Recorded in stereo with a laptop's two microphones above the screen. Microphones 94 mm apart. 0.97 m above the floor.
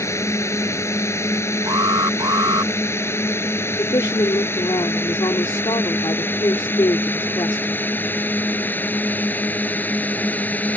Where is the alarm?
45° right (ahead or behind).